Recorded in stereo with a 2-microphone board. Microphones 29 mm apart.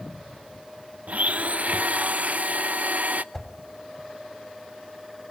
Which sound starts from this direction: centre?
A whoosh, at 3.3 s.